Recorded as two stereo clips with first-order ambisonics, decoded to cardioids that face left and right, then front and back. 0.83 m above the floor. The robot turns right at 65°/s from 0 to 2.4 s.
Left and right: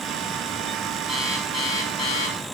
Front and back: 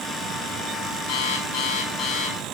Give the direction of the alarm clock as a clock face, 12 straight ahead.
12 o'clock.